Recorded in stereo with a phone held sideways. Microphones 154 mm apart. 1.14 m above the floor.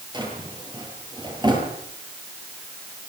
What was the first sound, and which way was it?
A drawer, 25° right (ahead or behind).